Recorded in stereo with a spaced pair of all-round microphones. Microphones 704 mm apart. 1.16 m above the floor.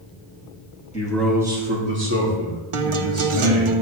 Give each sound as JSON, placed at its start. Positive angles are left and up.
{"t": 0.9, "sound": "a man speaking", "side_deg": 10, "distance_m": 2.0}
{"t": 2.7, "sound": "a guitar", "side_deg": -45, "distance_m": 0.7}